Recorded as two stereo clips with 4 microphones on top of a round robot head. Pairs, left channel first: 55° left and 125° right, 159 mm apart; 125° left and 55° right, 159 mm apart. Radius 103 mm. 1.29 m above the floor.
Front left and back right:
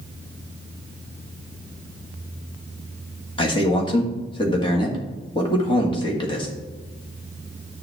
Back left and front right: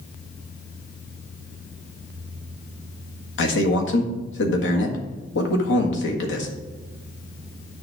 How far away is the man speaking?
About 1.7 m.